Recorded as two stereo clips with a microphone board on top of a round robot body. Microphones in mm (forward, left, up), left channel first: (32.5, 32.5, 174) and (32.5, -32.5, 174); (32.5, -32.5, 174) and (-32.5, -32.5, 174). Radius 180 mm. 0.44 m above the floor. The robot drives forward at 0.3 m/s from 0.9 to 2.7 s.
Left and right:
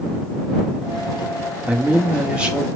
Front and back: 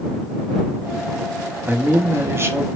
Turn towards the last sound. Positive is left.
turn(degrees=-160)